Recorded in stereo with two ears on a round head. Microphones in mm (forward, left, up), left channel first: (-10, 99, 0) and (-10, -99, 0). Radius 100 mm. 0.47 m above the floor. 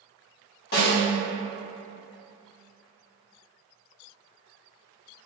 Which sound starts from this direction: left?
A snare drum, at 0.7 s.